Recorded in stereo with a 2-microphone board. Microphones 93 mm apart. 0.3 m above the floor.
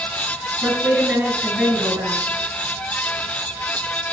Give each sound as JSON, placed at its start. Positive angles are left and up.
{"t": 0.6, "sound": "a woman speaking", "side_deg": -20, "distance_m": 5.5}